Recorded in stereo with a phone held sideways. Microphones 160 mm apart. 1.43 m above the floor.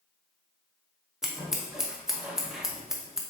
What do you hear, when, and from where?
1.2 s scissors: centre (ahead or behind), 0.8 m